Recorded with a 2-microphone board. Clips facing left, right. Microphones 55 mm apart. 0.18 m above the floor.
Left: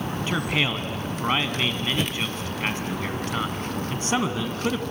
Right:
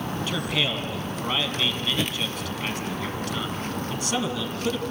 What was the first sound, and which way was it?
A man speaking, 35° left (ahead or behind).